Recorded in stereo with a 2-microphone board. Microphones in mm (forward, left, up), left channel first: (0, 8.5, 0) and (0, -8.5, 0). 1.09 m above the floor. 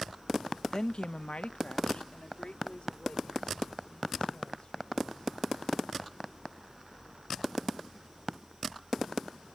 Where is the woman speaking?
35° left (ahead or behind); by 5.6 s 55° left (ahead or behind).